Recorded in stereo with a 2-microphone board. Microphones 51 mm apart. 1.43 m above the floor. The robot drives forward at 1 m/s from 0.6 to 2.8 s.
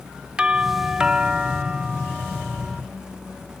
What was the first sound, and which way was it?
A doorbell, 20° right (ahead or behind).